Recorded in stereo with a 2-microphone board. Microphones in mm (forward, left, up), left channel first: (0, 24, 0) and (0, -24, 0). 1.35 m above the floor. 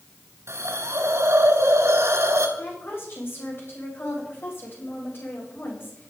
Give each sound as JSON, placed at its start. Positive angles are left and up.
{"t": 0.5, "sound": "a hiss", "side_deg": -70, "distance_m": 3.0}
{"t": 2.6, "sound": "a woman speaking", "side_deg": 50, "distance_m": 8.0}